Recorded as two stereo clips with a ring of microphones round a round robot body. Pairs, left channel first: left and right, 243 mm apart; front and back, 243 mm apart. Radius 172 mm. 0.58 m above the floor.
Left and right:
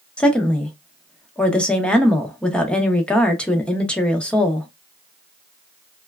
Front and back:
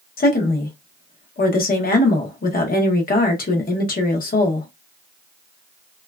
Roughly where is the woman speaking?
Ahead.